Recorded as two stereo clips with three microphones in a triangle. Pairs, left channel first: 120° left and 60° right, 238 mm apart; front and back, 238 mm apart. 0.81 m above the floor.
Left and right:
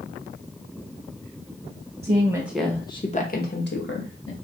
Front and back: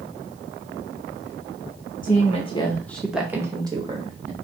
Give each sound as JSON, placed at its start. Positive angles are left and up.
{"t": 2.0, "sound": "a woman speaking", "azimuth_deg": -15, "distance_m": 0.8}